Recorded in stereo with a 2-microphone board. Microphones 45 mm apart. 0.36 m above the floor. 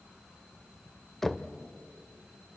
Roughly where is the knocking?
Centre.